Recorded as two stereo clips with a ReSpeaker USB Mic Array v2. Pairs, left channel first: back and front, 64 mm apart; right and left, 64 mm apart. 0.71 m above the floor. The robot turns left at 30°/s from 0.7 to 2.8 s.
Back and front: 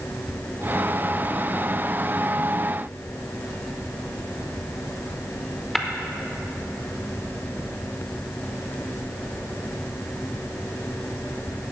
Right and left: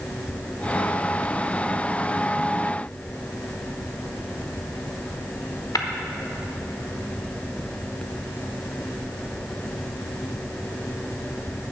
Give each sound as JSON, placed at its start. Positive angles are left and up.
{"t": 5.8, "sound": "tapping", "azimuth_deg": -95, "distance_m": 0.8}